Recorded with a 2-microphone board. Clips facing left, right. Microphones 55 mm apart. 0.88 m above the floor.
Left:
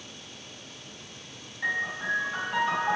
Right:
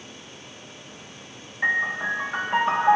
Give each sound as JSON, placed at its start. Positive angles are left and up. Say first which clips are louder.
{"t": 1.6, "sound": "a piano", "louder": "right 6 dB", "side_deg": -40, "distance_m": 2.5}